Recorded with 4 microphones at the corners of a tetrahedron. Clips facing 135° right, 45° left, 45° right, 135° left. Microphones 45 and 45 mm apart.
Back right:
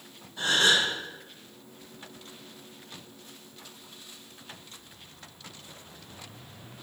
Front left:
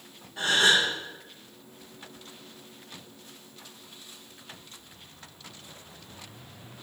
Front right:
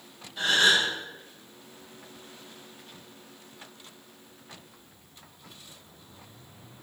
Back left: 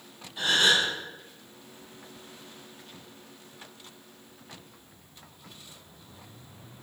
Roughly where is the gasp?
Ahead left.